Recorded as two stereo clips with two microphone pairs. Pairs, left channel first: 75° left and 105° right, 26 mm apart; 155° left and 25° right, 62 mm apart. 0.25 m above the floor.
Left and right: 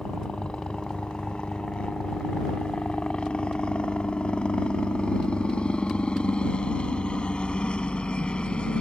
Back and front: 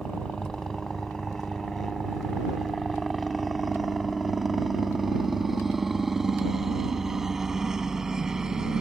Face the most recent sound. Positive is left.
turn(degrees=50)